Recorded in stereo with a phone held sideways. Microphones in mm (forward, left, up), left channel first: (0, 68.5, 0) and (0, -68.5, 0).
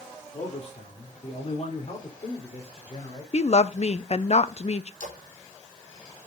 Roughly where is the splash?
Left.